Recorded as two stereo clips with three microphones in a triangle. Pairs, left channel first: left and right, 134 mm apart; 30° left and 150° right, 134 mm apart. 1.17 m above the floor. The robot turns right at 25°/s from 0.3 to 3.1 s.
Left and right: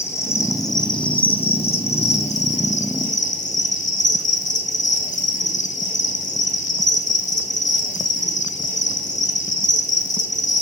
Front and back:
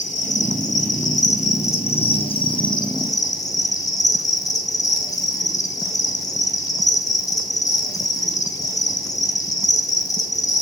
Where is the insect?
20° left, 2.5 m; by 10.6 s 90° left, 2.5 m.